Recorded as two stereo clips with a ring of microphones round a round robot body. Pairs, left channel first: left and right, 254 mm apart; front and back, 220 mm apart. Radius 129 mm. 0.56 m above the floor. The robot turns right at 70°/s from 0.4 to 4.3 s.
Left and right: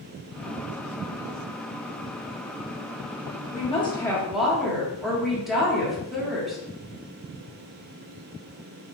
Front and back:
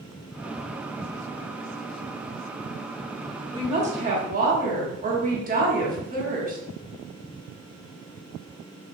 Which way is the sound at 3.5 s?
125° left.